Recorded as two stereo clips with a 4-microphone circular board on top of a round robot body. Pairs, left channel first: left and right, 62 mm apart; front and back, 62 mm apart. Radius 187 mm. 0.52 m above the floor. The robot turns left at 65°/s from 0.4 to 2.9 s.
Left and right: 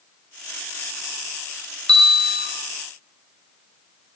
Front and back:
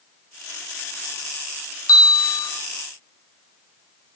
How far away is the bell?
About 2.0 m.